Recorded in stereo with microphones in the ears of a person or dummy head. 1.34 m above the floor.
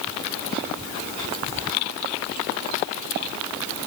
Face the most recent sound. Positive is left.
No sound to turn to.